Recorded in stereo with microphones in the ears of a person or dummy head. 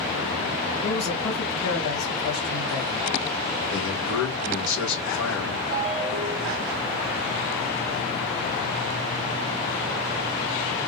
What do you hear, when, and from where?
0.8 s a man speaking: 65° left (ahead or behind), 3 m
3.7 s a man speaking: 70° left (ahead or behind), 2.5 m
5.7 s a ringtone: 25° right (ahead or behind), 1.6 m